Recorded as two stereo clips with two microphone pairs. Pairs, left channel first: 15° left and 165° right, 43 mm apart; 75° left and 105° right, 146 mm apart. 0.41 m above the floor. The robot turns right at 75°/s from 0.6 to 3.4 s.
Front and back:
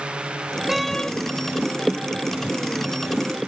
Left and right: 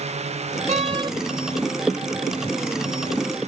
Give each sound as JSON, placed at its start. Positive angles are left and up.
{"t": 0.7, "sound": "a door slam", "azimuth_deg": -85}